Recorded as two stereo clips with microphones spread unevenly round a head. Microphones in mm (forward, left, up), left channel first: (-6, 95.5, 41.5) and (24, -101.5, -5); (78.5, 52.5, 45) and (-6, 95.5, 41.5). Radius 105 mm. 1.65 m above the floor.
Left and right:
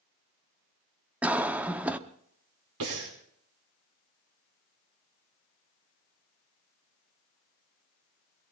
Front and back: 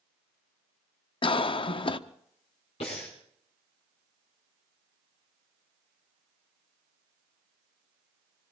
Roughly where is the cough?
Ahead.